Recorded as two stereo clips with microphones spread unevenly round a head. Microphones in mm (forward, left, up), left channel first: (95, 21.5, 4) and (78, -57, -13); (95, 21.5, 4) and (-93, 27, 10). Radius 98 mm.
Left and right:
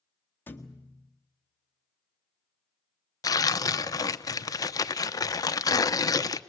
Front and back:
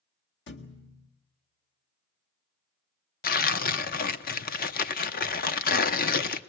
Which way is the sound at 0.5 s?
20° left.